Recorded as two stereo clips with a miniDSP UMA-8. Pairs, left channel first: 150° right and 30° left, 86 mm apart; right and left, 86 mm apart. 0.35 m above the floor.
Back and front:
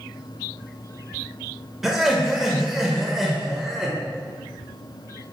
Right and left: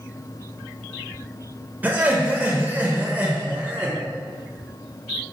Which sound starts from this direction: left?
Laughter, at 1.8 s.